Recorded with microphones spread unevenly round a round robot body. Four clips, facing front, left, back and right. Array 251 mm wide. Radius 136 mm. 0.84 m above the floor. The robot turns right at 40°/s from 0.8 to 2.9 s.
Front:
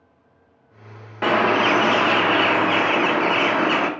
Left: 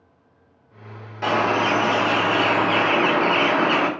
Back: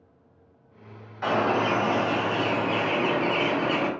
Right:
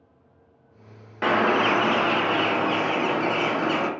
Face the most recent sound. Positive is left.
turn(degrees=45)